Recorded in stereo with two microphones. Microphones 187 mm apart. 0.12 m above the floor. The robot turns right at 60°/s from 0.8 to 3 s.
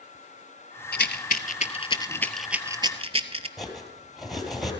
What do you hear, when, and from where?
0.9 s a rattle: 65° left (ahead or behind), 0.7 m; by 3.5 s 30° right (ahead or behind), 0.7 m
3.6 s cutlery clinking: centre (ahead or behind), 1.8 m